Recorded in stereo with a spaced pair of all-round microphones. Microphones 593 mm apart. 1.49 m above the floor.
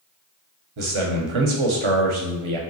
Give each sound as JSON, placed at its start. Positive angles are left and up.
{"t": 0.8, "sound": "a man speaking", "side_deg": -55, "distance_m": 0.7}